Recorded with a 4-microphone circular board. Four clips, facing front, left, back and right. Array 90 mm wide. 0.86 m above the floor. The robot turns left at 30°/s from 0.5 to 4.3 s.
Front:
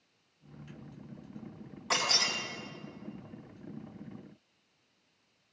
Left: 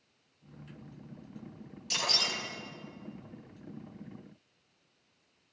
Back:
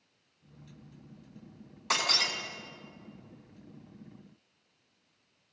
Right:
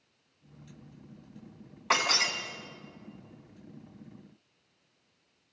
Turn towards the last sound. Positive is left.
turn(degrees=-175)